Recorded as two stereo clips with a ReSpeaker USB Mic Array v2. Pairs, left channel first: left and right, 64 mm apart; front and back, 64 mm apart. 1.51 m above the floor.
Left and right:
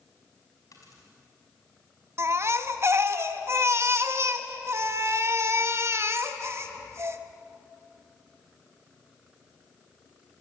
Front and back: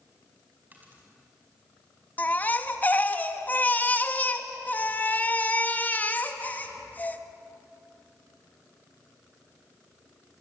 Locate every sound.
0.7 s a dropped coin: 115° left, 5 m
2.2 s a baby crying: 60° right, 1.2 m